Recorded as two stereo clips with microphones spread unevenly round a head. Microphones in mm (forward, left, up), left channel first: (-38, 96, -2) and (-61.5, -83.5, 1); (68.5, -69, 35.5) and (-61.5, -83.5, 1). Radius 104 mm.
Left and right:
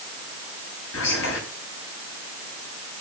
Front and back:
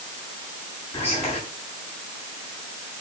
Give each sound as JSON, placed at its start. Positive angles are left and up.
{"t": 0.9, "sound": "whispering", "azimuth_deg": 90, "distance_m": 9.5}